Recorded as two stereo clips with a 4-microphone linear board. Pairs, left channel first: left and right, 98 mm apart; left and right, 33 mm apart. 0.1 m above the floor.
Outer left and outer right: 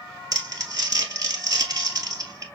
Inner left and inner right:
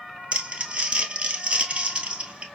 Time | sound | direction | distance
0.3 | crumpling | 35° right (ahead or behind) | 1.3 m